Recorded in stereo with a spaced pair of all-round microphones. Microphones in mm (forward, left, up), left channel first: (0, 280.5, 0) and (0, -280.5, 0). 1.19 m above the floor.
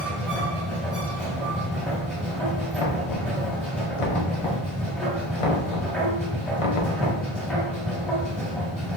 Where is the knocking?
65° left (ahead or behind), 0.6 m.